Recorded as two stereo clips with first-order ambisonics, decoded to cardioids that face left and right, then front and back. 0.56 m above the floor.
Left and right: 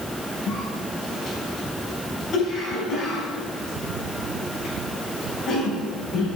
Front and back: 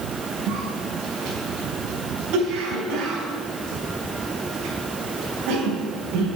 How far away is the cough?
About 5 m.